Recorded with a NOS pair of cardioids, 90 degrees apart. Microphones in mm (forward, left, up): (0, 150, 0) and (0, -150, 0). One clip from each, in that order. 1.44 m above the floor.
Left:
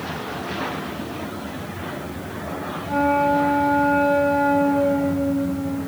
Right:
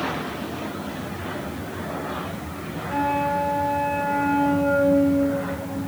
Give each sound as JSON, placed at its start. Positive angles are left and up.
{"t": 2.9, "sound": "a flute", "azimuth_deg": 35, "distance_m": 8.0}